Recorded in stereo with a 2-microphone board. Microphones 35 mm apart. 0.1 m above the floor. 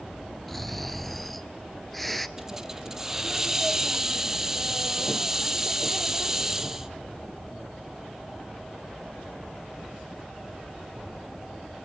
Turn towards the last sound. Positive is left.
turn(degrees=-10)  # may be behind; listen again after turning